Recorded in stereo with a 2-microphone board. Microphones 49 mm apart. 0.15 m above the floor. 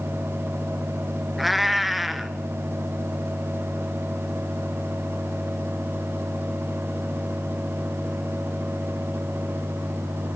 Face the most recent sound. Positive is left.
turn(degrees=0)  # may be behind; listen again after turning